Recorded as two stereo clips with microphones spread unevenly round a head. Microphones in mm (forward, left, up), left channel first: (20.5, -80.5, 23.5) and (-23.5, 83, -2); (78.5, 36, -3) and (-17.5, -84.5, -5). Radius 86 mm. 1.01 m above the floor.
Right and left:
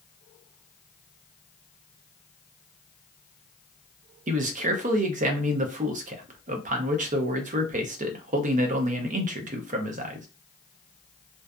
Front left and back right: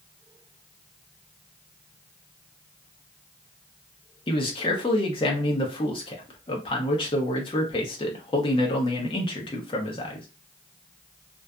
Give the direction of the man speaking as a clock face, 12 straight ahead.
8 o'clock.